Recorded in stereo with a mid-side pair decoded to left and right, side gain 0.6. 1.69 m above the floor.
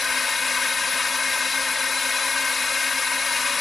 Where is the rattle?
No rattle in this recording.